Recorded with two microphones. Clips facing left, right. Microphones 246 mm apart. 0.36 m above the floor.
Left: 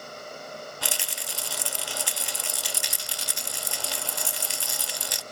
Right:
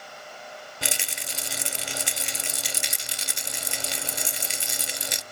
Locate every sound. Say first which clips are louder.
0.8 s a rattle: right 1 dB; 20° right (ahead or behind), 0.6 m